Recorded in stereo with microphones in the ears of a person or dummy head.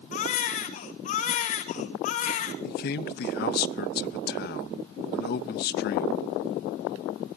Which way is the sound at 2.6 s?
45° left (ahead or behind).